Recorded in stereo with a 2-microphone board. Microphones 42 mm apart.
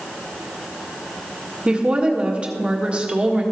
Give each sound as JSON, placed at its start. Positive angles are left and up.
{"t": 1.6, "sound": "a woman speaking", "side_deg": -25, "distance_m": 1.3}